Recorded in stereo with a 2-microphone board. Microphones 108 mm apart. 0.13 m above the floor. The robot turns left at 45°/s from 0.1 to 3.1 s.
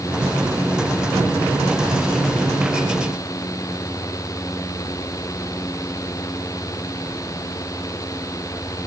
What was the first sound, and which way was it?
Only background noise.